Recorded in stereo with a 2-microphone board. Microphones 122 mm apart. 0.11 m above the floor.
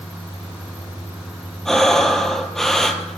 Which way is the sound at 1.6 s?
5° left (ahead or behind).